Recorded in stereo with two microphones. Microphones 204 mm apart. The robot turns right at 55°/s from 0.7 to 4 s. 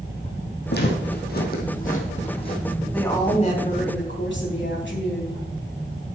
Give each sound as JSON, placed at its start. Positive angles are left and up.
{"t": 0.7, "sound": "footsteps", "side_deg": 55, "distance_m": 2.5}
{"t": 2.9, "sound": "a woman speaking", "azimuth_deg": 5, "distance_m": 3.0}